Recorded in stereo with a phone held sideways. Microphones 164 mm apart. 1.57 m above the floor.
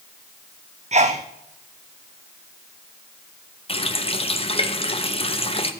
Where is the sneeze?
40° right (ahead or behind), 0.6 m.